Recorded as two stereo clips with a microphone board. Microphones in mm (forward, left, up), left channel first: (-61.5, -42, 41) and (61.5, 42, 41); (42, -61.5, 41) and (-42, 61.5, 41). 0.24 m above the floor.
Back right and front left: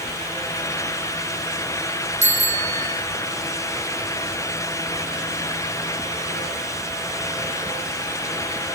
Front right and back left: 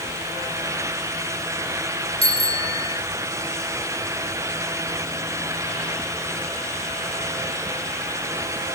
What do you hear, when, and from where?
2.2 s a bicycle bell: 5° right, 9.5 m